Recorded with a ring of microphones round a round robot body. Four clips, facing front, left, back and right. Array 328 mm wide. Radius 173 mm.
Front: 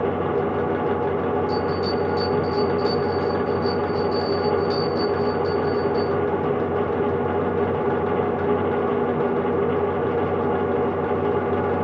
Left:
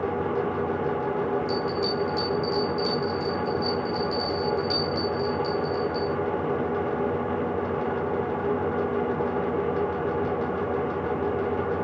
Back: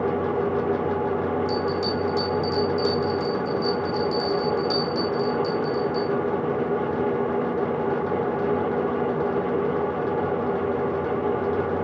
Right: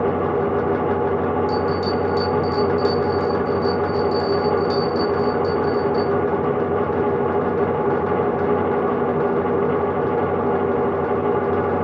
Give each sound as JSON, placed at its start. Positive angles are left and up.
{"t": 1.5, "sound": "a bell", "azimuth_deg": -160, "distance_m": 3.5}